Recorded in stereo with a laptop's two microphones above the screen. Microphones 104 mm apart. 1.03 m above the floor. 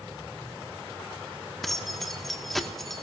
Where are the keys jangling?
Centre (ahead or behind), 1.7 m.